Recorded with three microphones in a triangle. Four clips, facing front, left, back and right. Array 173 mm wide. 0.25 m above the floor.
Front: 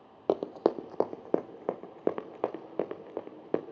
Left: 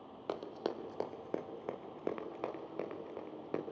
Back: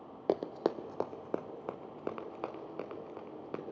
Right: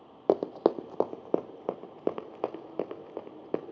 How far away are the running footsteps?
About 0.5 m.